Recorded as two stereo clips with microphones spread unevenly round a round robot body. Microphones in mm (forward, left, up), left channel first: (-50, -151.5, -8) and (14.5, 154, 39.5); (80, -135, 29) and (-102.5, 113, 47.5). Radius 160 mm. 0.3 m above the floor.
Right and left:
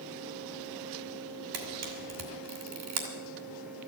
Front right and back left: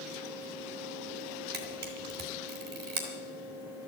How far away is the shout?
I don't hear a shout.